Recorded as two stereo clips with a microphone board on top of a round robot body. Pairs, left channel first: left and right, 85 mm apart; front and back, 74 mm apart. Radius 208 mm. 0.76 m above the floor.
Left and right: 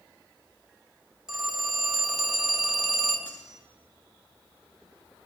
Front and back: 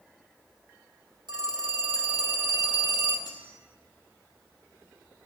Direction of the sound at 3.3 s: 160° right.